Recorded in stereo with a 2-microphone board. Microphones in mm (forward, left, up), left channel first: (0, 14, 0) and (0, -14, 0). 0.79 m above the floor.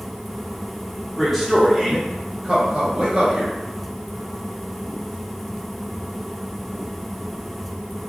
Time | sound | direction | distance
1.2 | a man speaking | 5° left (ahead or behind) | 1.3 m